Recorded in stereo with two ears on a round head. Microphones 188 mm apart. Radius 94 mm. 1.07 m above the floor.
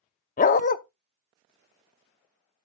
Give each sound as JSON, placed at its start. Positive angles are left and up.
{"t": 0.4, "sound": "a dog barking", "side_deg": 40, "distance_m": 0.7}